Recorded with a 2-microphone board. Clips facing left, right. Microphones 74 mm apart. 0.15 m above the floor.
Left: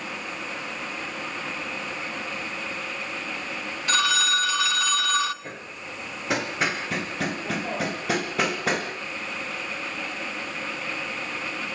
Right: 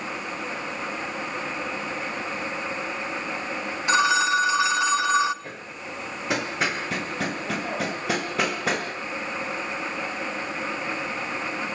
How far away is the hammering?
About 3.5 m.